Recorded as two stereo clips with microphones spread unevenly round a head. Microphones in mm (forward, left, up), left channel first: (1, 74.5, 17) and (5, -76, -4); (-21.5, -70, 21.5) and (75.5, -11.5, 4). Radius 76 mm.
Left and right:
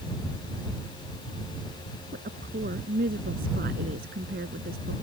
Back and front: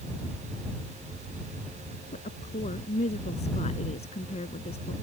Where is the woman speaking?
125° right; by 4.9 s 120° right.